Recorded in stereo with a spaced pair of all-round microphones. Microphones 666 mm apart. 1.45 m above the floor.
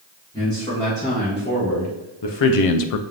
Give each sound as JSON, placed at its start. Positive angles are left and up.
{"t": 0.3, "sound": "a man speaking", "side_deg": 5, "distance_m": 1.7}